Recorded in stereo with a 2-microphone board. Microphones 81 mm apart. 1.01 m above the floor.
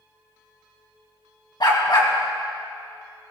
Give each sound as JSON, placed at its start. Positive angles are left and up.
{"t": 1.6, "sound": "a dog barking", "side_deg": 60, "distance_m": 2.5}